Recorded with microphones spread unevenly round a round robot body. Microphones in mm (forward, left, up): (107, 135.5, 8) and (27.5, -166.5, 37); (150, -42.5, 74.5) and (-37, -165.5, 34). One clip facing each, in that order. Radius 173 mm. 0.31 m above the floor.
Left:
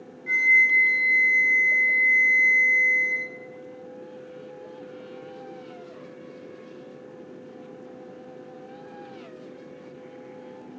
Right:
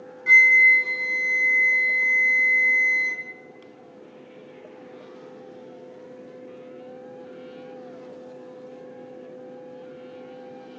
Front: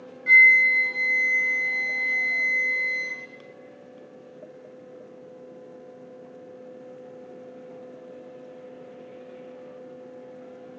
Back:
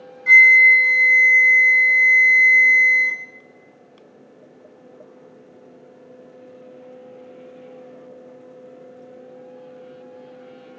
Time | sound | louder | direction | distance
0.3 | a flute | right 5 dB, back 5 dB | 115° right | 1.2 m